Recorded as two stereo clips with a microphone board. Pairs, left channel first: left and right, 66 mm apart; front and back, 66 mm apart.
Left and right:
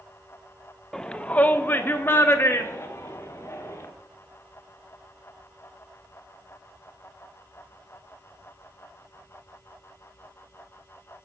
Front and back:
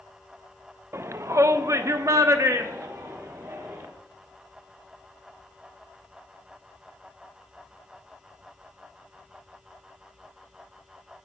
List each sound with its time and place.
0.9 s a shout: 170° left, 0.5 m; by 3.9 s 135° left, 2.0 m